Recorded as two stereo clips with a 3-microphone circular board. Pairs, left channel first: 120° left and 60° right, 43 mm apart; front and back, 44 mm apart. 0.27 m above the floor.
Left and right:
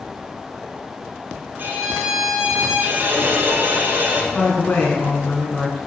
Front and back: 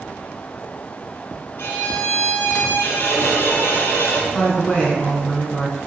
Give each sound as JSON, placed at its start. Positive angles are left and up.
{"t": 1.6, "sound": "a violin", "azimuth_deg": -25, "distance_m": 2.5}
{"t": 4.3, "sound": "a woman speaking", "azimuth_deg": 65, "distance_m": 3.0}